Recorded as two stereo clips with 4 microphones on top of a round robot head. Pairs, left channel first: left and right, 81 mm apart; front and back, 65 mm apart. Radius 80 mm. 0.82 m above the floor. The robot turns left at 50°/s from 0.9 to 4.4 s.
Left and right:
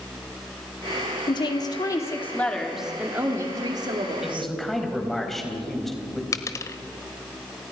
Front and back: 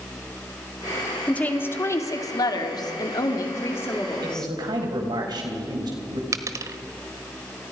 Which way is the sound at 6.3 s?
140° left.